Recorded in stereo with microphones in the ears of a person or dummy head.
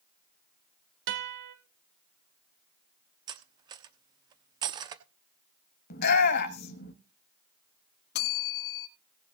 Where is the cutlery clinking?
25° right (ahead or behind), 1.0 m.